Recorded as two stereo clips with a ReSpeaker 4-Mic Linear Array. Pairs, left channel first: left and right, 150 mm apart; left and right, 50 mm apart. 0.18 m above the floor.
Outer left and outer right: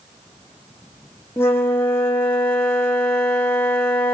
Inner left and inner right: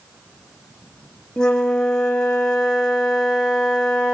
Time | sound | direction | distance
1.4 | a flute | 15° left (ahead or behind) | 1.7 m